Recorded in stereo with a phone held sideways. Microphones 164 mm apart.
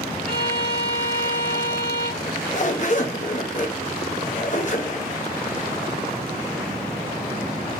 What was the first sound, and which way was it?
A violin, 60° left (ahead or behind).